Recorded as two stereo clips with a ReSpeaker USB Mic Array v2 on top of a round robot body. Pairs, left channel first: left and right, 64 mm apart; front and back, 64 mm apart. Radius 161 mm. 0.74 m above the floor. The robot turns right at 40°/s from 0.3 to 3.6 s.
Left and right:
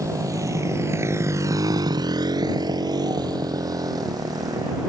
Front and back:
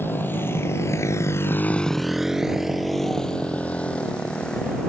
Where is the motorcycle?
55° right; by 4.9 s 75° right.